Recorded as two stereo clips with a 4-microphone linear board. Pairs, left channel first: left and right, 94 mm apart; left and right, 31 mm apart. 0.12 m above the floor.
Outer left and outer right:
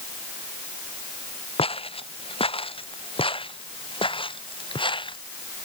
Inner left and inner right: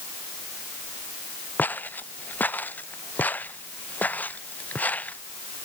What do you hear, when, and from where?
1.6 s footsteps: 80° left; by 5.2 s 60° left (ahead or behind)